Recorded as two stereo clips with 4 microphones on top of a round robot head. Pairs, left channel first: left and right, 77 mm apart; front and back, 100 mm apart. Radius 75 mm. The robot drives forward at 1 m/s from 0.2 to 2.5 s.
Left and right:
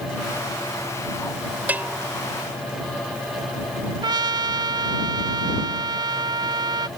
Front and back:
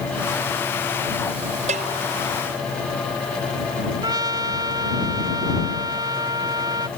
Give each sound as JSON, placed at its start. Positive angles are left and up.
{"t": 1.7, "sound": "a bell", "azimuth_deg": -160}
{"t": 4.0, "sound": "a trumpet", "azimuth_deg": -120}